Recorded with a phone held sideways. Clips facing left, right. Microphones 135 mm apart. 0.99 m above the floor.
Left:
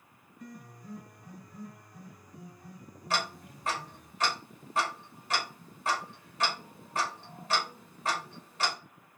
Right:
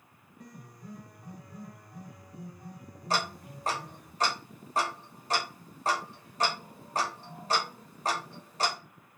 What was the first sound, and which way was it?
A piano, 60° right (ahead or behind).